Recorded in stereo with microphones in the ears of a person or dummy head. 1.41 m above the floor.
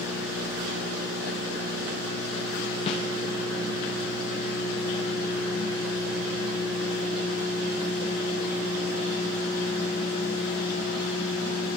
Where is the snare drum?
25° left (ahead or behind), 0.5 m.